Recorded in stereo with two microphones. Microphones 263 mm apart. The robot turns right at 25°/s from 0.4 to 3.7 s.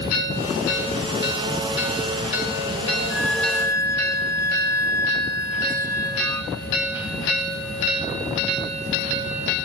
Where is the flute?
5° right (ahead or behind); by 6.5 s 10° left (ahead or behind).